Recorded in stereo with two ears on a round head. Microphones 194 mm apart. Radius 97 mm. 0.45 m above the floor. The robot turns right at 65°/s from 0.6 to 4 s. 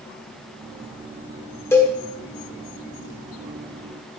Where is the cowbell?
10° left (ahead or behind), 1.1 m; by 2.0 s 5° left (ahead or behind), 1.1 m.